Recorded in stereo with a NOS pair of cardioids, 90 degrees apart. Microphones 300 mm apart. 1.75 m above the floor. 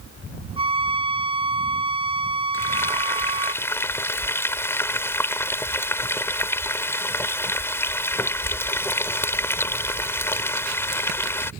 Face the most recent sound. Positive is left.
turn(degrees=10)